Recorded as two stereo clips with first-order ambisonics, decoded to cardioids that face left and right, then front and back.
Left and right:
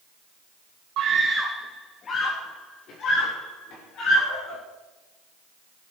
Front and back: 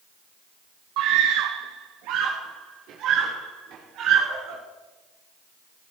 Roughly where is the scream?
Behind right.